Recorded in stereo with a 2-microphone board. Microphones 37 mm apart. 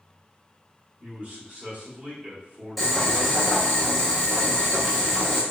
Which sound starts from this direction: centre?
Boiling, at 2.8 s.